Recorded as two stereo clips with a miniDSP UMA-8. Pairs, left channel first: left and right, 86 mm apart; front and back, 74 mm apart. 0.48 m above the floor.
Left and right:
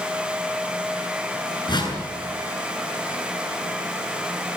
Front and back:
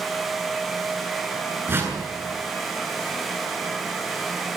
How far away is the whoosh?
About 7.5 m.